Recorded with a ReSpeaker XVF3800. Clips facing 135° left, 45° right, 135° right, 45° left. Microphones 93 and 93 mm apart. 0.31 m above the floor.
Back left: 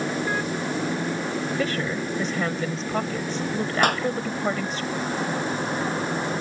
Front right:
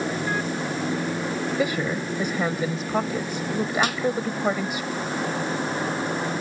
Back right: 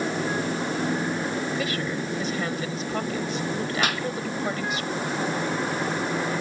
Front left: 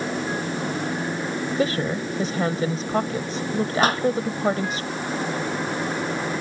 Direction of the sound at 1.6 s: 25° left.